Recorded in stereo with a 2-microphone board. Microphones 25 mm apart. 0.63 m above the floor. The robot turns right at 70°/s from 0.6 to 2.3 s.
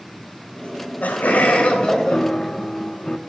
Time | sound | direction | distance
0.6 | laughter | 55° left | 3.5 m
2.1 | a piano | 35° left (ahead or behind) | 0.8 m